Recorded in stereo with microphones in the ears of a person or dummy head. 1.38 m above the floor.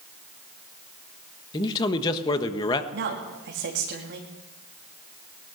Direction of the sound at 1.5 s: 20° left (ahead or behind).